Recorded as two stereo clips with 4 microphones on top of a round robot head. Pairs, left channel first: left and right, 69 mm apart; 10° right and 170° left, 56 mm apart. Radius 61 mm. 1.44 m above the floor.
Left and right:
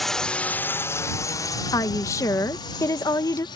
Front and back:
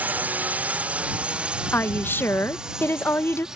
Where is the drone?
175° left; by 3.6 s 90° left.